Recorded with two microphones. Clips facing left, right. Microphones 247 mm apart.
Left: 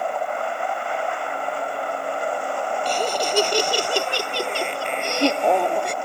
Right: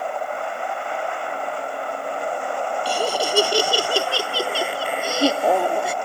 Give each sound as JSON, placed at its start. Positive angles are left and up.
{"t": 2.9, "sound": "laughter", "side_deg": -10}